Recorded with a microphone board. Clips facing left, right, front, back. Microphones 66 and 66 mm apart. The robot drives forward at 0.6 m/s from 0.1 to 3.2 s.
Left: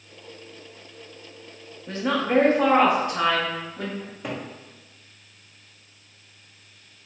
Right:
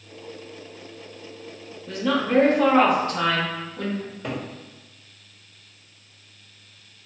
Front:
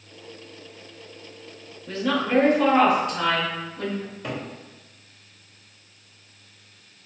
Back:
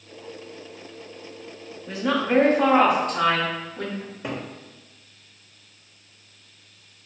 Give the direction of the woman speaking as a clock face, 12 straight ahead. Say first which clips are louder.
Right 1 dB, back 1 dB; 8 o'clock.